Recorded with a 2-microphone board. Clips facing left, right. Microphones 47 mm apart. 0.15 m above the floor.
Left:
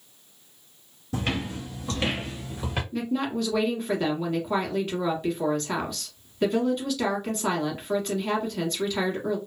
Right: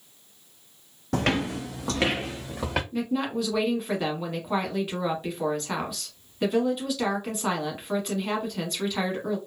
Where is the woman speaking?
5° right (ahead or behind), 1.1 m.